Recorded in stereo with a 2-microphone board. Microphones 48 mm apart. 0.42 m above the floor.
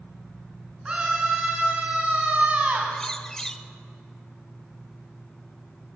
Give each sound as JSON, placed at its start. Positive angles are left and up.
{"t": 0.8, "sound": "a scream", "side_deg": -20, "distance_m": 4.5}
{"t": 2.9, "sound": "a bird", "side_deg": 10, "distance_m": 0.8}